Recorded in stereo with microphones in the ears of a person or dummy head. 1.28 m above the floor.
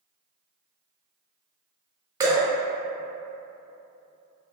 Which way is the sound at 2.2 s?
20° right (ahead or behind).